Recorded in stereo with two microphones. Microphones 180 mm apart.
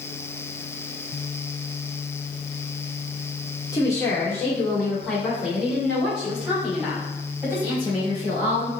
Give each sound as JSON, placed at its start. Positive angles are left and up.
{"t": 3.7, "sound": "a woman speaking", "side_deg": 20, "distance_m": 1.1}